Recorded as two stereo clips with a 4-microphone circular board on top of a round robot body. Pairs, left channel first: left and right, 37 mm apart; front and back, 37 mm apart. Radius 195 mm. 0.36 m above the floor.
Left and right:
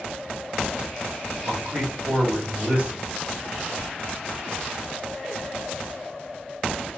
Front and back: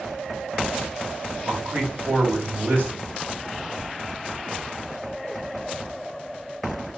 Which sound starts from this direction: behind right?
A man speaking, at 1.4 s.